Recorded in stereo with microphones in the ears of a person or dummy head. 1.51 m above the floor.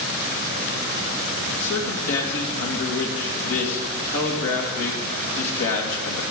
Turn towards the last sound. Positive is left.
turn(degrees=65)  # may be behind; listen again after turning